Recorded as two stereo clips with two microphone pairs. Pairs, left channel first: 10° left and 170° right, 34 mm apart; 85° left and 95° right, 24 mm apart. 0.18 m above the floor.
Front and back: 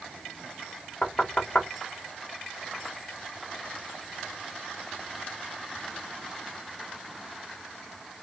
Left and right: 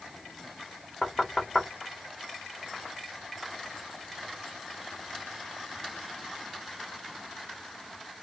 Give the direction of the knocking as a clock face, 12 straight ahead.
12 o'clock.